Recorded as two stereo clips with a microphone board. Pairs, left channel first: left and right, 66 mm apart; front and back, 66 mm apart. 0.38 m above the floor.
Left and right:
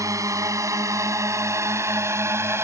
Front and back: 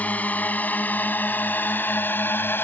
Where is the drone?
65° right; by 2.6 s 50° right.